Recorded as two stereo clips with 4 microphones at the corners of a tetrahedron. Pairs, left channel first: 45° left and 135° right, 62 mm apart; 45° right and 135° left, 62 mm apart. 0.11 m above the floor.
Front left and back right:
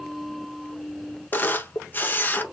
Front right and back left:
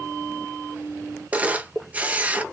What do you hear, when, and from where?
1.3 s a camera shutter: 80° left, 0.6 m